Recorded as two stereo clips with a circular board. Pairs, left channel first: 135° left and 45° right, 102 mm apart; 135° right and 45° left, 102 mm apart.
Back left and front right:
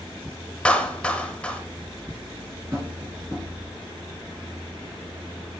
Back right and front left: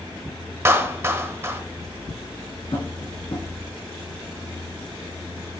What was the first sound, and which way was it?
A clap, 70° left.